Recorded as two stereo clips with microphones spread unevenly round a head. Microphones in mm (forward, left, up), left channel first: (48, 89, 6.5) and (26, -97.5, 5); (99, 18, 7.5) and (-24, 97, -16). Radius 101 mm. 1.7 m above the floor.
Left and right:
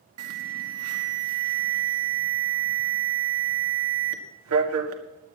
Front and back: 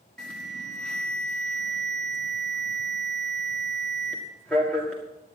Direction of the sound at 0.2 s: 120° right.